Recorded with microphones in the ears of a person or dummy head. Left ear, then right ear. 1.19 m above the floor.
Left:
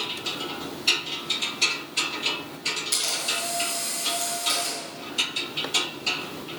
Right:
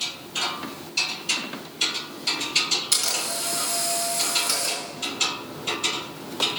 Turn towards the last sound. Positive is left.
turn(degrees=-65)  # may be behind; listen again after turning